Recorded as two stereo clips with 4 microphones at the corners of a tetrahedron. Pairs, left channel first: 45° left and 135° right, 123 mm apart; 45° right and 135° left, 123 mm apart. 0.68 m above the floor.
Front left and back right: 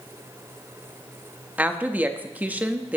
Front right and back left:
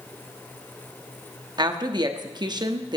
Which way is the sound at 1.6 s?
155° left.